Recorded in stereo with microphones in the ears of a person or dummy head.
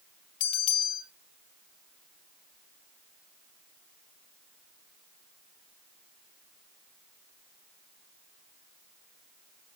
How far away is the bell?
About 1.9 m.